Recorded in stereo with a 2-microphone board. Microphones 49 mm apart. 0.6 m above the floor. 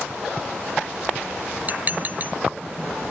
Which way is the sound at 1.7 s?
40° right (ahead or behind).